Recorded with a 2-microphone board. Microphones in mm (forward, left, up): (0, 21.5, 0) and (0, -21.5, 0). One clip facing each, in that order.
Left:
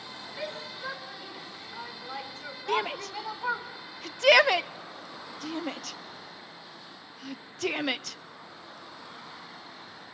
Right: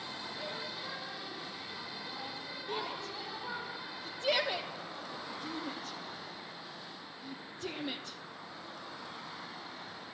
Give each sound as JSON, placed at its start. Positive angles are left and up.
{"t": 0.4, "sound": "a shout", "side_deg": 75, "distance_m": 6.0}
{"t": 2.7, "sound": "a shout", "side_deg": 75, "distance_m": 0.9}